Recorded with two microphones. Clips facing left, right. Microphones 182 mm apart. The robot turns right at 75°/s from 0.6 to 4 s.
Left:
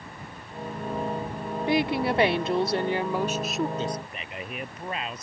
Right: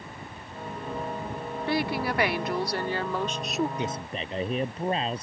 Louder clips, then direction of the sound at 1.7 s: Left 4 dB; 15° left (ahead or behind).